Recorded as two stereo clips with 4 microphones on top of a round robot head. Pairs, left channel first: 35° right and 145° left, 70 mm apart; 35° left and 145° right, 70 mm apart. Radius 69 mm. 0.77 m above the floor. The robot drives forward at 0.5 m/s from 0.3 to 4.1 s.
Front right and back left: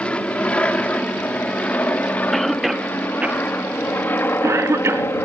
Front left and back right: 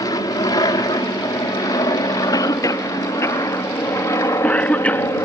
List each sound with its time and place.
0.0 s an aircraft: 40° left; by 5.3 s 10° left
2.3 s a cough: 55° left; by 5.1 s 100° left